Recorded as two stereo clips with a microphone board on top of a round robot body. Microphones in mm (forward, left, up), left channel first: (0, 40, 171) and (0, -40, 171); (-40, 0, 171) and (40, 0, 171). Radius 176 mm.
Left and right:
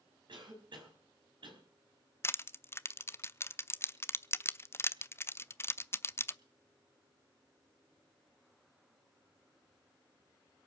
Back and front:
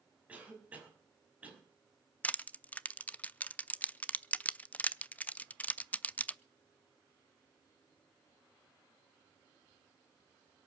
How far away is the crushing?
About 0.8 m.